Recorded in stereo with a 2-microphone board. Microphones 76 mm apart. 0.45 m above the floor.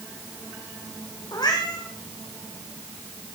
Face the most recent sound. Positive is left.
turn(degrees=60)  # may be behind; listen again after turning